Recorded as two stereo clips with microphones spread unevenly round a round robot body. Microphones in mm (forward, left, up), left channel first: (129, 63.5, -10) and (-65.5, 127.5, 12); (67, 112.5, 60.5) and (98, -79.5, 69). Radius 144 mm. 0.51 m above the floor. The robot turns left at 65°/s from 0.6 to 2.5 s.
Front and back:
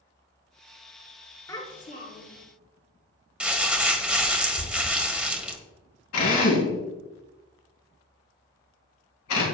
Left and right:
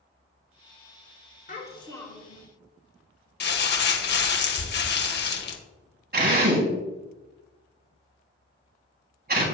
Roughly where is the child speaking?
Ahead left.